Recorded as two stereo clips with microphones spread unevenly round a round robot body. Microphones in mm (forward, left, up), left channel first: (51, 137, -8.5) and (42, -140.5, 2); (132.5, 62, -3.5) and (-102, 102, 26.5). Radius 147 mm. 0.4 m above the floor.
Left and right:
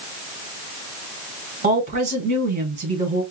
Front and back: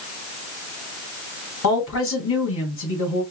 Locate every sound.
1.6 s a woman speaking: 30° right, 2.0 m